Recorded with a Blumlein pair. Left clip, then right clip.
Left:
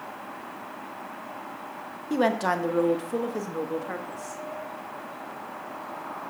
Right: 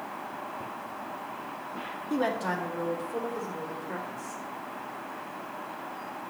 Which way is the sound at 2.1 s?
15° left.